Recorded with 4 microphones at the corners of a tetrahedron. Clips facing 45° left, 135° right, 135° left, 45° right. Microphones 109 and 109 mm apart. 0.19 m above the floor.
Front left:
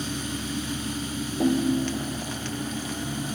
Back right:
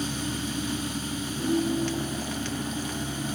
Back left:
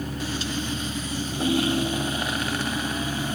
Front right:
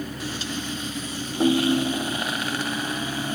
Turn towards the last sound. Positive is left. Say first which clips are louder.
# front left 3 dB, front right 4 dB
turn(degrees=15)